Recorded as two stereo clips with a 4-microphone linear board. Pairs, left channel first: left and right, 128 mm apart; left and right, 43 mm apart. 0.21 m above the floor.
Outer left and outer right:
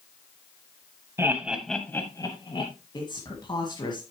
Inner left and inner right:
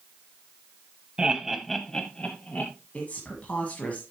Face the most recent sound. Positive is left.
turn(degrees=35)  # may be behind; listen again after turning